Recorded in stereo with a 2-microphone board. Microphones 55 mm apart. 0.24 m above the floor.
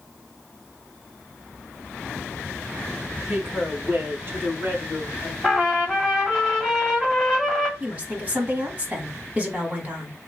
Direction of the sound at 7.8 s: 30° right (ahead or behind).